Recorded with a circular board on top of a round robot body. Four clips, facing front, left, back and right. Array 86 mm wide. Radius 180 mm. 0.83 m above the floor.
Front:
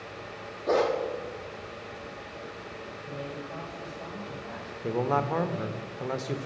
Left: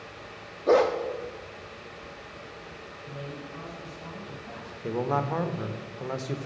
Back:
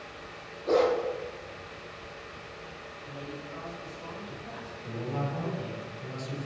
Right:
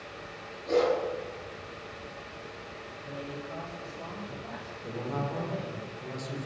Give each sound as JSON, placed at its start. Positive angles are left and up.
{"t": 0.7, "sound": "a dog barking", "azimuth_deg": 80, "distance_m": 1.2}
{"t": 3.0, "sound": "a man speaking", "azimuth_deg": -70, "distance_m": 6.0}
{"t": 4.8, "sound": "a man speaking", "azimuth_deg": 35, "distance_m": 1.1}